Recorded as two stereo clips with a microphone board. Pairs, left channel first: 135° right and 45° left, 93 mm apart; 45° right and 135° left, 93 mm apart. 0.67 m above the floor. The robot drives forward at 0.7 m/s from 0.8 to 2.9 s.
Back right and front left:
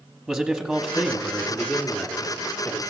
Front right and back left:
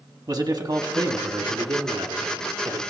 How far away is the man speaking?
About 1.3 m.